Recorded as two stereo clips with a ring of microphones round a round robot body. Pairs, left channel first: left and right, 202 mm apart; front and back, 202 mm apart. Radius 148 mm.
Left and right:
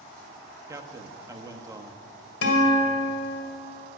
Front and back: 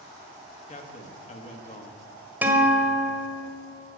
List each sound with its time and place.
0.7 s a man speaking: 25° right, 1.2 m
2.4 s a guitar: 100° left, 2.5 m